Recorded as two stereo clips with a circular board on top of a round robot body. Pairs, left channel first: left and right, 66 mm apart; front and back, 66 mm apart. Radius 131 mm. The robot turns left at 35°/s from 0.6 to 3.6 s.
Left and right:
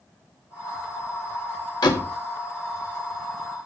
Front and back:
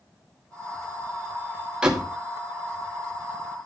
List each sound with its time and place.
1.8 s a door slam: 105° left, 2.5 m; by 2.1 s 90° left, 2.5 m